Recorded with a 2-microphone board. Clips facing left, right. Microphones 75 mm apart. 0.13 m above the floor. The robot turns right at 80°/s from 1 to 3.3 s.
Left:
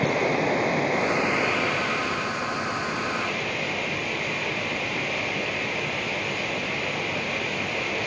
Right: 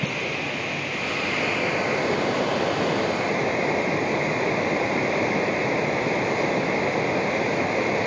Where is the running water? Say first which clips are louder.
Left 5 dB; 140° left, 1.2 m; by 8.1 s 35° right, 1.2 m.